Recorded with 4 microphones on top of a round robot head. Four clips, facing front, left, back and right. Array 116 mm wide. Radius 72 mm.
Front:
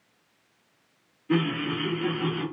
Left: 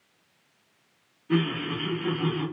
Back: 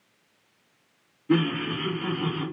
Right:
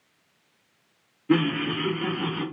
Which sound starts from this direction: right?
Laughter, at 1.3 s.